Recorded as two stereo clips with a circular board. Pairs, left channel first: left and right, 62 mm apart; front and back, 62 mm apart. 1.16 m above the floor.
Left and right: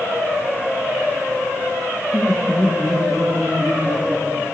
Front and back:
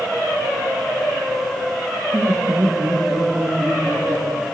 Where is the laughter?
170° right, 1.4 m; by 4.5 s straight behind, 3 m.